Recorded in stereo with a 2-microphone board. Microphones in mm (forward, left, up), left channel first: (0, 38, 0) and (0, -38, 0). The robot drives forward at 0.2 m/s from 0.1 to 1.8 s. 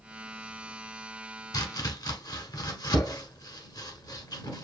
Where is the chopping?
60° left (ahead or behind), 1.2 m.